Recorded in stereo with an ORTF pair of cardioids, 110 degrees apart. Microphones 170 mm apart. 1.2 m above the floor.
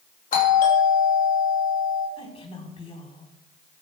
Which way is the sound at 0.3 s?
60° left.